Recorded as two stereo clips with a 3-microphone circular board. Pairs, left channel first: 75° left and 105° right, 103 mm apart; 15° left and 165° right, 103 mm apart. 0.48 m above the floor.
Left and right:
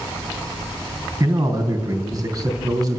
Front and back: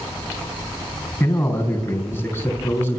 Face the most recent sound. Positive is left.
turn(degrees=-55)